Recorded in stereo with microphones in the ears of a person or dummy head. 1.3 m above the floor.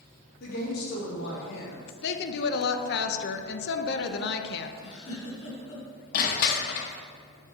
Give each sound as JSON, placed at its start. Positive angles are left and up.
{"t": 0.4, "sound": "a woman speaking", "side_deg": 55, "distance_m": 3.0}
{"t": 2.0, "sound": "a woman speaking", "side_deg": 55, "distance_m": 0.7}
{"t": 4.8, "sound": "a giggle", "side_deg": 65, "distance_m": 3.0}
{"t": 6.1, "sound": "crushing", "side_deg": 50, "distance_m": 0.9}